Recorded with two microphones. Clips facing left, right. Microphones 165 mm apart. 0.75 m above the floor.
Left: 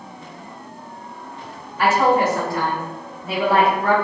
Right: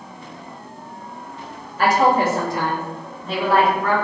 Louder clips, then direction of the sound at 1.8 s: Even; 40° right (ahead or behind).